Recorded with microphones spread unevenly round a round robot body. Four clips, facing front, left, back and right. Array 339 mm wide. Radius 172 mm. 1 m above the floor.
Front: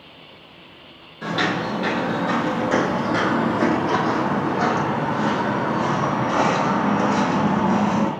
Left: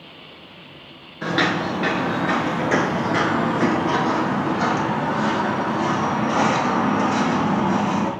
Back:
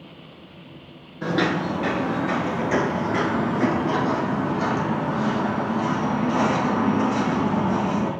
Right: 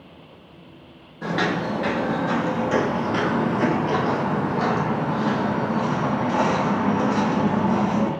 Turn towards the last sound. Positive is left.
turn(degrees=25)